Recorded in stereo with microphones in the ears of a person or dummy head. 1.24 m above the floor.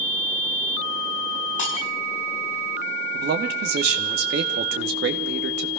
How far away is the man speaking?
About 2.5 m.